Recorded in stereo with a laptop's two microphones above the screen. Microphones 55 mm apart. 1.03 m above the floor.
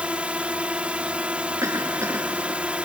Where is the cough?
70° right (ahead or behind).